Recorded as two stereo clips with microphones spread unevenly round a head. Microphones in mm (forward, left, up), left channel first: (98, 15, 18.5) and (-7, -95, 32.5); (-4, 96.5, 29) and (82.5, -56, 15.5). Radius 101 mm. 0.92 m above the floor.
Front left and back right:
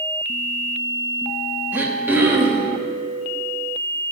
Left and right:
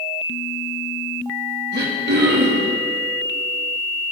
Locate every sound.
1.7 s throat clearing: 55° right, 2 m